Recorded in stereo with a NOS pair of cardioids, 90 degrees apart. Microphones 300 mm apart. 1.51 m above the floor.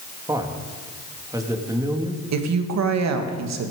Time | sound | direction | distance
0.3 | a man speaking | 10° right | 2.5 m
2.3 | a woman speaking | 60° right | 2.5 m